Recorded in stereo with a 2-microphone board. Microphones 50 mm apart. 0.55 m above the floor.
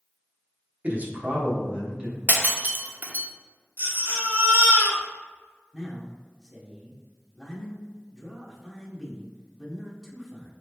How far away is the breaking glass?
About 0.6 m.